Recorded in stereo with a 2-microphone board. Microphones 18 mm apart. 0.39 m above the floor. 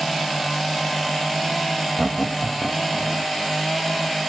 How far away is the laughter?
About 1.5 m.